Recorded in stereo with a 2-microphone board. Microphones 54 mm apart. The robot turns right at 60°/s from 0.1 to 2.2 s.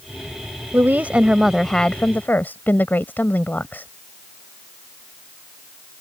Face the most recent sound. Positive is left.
turn(degrees=40)